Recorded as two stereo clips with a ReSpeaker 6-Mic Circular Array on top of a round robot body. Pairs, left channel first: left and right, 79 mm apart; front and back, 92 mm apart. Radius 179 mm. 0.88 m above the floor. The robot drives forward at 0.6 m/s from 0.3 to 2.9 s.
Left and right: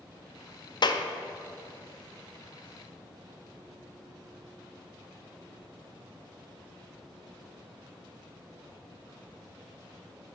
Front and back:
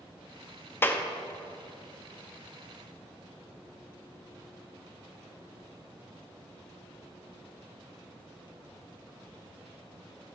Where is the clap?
65° left, 0.6 m; by 1.0 s 80° left, 0.6 m.